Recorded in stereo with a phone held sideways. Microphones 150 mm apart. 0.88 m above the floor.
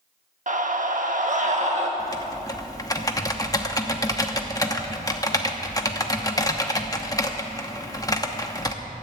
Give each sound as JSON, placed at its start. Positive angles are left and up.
{"t": 0.5, "sound": "a scream", "side_deg": -60, "distance_m": 1.1}
{"t": 2.0, "sound": "typing on a keyboard", "side_deg": 25, "distance_m": 0.9}